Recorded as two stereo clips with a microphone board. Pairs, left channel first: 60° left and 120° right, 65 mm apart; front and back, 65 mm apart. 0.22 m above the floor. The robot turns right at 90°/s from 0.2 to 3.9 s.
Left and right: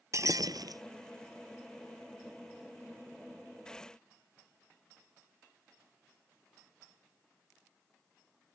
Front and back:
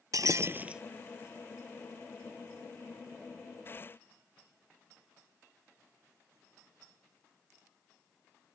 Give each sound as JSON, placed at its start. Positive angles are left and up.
{"t": 0.1, "sound": "breaking glass", "azimuth_deg": -155}